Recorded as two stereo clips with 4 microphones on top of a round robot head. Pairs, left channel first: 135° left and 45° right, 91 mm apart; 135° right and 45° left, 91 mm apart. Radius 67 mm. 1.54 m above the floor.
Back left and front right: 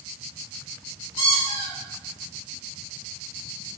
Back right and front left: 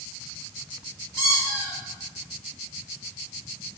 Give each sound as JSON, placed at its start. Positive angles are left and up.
{"t": 1.2, "sound": "a squeak", "azimuth_deg": 125, "distance_m": 1.1}